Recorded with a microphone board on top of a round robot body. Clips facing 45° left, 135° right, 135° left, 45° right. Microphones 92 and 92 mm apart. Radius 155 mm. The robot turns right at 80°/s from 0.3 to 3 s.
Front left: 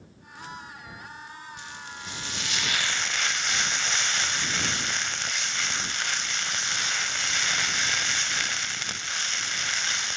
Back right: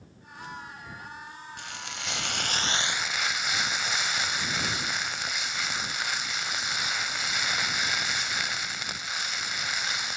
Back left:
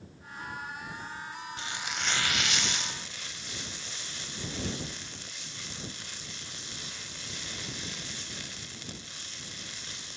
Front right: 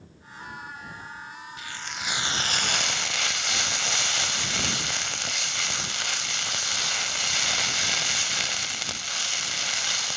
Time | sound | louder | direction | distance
1.6 | frying | even, even | 165° right | ?